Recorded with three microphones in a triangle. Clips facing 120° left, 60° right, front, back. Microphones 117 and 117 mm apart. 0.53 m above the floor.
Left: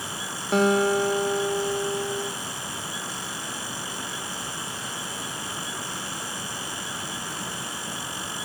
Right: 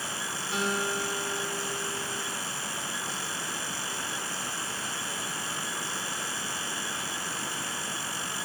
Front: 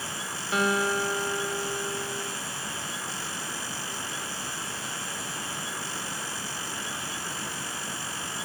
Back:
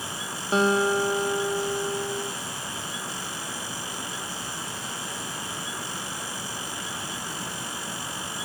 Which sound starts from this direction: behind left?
A guitar, at 0.5 s.